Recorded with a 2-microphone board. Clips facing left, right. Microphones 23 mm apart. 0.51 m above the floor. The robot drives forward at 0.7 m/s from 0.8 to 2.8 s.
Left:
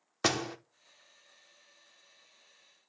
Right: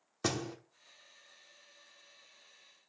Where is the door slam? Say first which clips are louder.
Left 5 dB; 35° left (ahead or behind), 0.8 m.